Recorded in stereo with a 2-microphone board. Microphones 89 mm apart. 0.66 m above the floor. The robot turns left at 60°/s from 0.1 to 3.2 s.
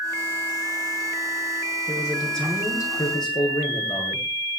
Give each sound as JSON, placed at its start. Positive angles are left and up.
{"t": 1.9, "sound": "a man speaking", "azimuth_deg": -155, "distance_m": 9.5}